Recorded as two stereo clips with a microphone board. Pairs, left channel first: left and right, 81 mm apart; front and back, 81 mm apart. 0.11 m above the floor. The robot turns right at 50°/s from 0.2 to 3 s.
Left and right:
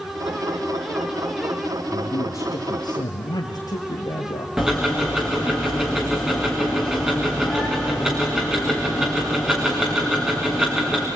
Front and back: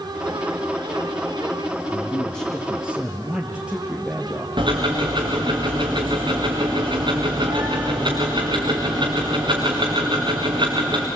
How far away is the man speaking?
About 2 m.